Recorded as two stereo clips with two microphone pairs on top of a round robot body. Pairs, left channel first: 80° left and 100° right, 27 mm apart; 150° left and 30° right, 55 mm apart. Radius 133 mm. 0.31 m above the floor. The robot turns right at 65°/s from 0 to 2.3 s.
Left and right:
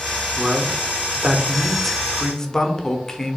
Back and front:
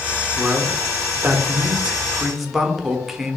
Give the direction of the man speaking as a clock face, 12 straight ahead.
3 o'clock.